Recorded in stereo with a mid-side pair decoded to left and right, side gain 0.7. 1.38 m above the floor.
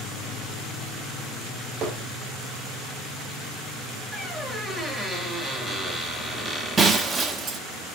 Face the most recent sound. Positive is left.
turn(degrees=-25)